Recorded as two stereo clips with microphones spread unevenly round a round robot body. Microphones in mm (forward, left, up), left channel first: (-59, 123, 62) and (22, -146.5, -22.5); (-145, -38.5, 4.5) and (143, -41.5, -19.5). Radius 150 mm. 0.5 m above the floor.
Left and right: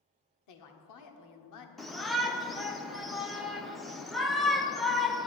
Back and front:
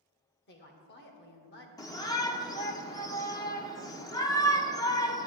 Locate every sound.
0.5 s a woman speaking: 125° left, 1.4 m
1.8 s a shout: 110° right, 0.8 m